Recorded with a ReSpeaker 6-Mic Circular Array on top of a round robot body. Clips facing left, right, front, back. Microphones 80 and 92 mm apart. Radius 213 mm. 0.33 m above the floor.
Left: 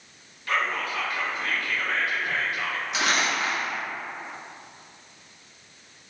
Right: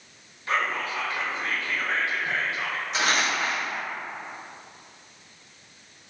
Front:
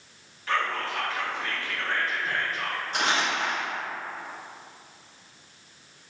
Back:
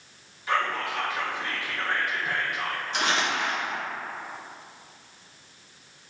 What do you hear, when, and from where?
0.5 s whispering: 115° right, 0.9 m
2.9 s crumpling: 40° right, 1.8 m